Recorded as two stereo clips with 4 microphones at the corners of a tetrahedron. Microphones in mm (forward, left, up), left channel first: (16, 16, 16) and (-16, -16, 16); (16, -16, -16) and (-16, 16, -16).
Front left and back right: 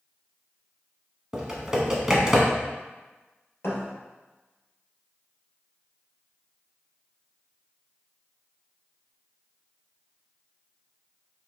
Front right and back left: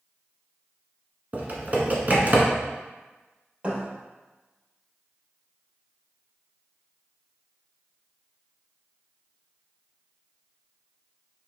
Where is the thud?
75° left, 2 m.